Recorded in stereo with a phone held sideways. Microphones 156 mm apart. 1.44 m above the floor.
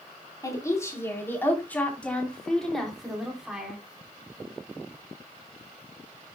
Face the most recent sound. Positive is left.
turn(degrees=-5)  # may be behind; listen again after turning